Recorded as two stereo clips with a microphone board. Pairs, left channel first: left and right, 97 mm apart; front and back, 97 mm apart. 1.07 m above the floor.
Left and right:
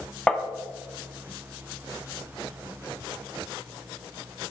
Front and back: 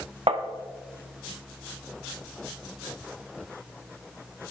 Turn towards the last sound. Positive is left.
turn(degrees=170)